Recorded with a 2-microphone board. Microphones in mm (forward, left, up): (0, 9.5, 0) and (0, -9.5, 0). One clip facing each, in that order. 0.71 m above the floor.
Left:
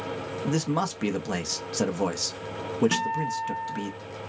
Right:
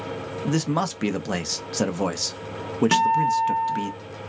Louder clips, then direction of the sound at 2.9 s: Right 8 dB; 45° right (ahead or behind).